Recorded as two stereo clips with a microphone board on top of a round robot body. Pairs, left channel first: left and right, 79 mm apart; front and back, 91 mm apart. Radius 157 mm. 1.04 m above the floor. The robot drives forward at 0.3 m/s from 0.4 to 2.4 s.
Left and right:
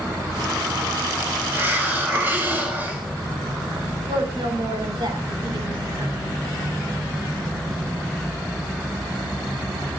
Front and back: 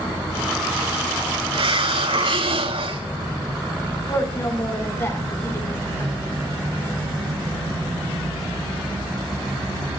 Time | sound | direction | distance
1.5 | a hiss | 155° right | 4 m
4.1 | a woman speaking | 60° right | 7.5 m